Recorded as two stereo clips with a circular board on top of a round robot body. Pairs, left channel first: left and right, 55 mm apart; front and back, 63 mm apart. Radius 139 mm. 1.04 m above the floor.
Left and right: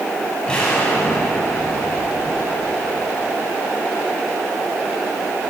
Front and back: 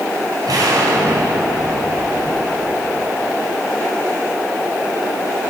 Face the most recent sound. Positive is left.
turn(degrees=165)